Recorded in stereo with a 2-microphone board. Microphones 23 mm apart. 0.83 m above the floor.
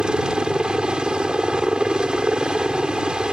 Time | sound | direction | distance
0.0 | a helicopter | 45° right (ahead or behind) | ?